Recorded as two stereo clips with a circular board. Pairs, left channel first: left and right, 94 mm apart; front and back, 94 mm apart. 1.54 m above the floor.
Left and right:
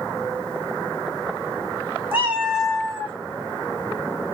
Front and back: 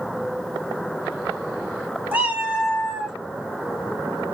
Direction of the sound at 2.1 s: 130° right.